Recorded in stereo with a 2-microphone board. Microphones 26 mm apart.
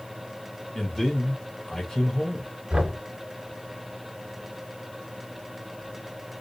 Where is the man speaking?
10° left (ahead or behind), 1.2 m.